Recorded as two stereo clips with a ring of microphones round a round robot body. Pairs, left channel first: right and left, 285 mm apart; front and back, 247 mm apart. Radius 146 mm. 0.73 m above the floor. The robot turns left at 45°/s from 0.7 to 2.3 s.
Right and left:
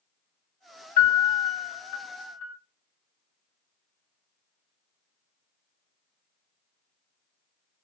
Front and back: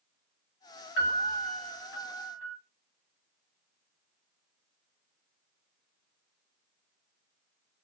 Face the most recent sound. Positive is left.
turn(degrees=-95)